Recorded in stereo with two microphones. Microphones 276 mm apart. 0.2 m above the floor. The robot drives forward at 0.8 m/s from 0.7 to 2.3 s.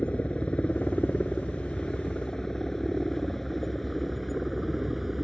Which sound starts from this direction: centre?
A helicopter, at 0.0 s.